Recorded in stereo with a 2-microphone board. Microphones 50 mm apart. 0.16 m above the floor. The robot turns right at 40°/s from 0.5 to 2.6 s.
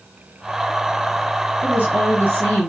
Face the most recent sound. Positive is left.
turn(degrees=135)